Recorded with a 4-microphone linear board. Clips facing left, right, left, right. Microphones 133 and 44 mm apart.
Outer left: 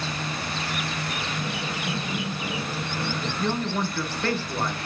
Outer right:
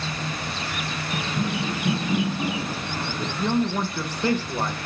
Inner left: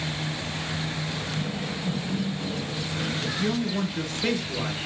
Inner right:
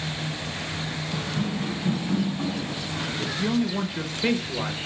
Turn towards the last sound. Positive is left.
turn(degrees=-15)  # may be behind; listen again after turning